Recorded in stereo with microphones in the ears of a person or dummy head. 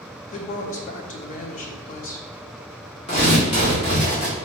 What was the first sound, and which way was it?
A woman speaking, 40° left (ahead or behind).